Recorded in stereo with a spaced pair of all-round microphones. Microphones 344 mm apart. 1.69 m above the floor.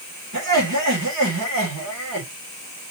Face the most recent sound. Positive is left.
turn(degrees=-65)  # may be behind; listen again after turning